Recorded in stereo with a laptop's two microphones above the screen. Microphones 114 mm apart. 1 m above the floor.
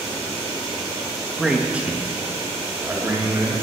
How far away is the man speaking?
About 1.6 m.